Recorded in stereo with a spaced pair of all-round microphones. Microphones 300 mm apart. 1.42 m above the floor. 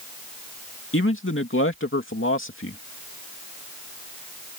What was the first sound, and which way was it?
A man speaking, 40° left (ahead or behind).